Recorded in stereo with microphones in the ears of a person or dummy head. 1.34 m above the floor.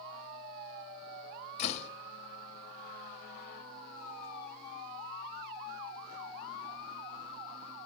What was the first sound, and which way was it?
A door slam, 35° left (ahead or behind).